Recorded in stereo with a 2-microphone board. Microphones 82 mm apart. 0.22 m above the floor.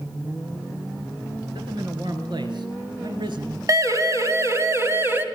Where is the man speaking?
60° right (ahead or behind), 3.5 m; by 3.6 s 70° right (ahead or behind), 4.5 m.